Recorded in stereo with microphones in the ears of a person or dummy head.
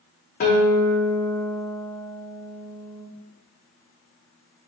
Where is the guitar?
35° left (ahead or behind), 0.7 m.